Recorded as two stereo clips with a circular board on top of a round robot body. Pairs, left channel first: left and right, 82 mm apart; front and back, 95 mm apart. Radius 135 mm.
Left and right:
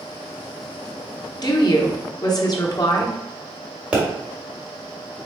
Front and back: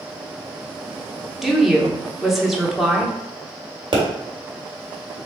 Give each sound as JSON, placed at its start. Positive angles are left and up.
{"t": 1.4, "sound": "a woman speaking", "azimuth_deg": 95, "distance_m": 1.2}
{"t": 3.9, "sound": "a pop", "azimuth_deg": -160, "distance_m": 1.7}